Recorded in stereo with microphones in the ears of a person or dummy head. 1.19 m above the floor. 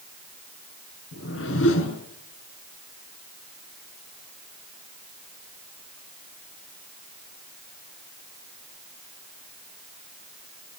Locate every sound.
1.1 s a whoosh: 75° left (ahead or behind), 7 m